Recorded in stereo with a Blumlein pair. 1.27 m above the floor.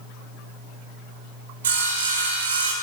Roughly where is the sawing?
Ahead right.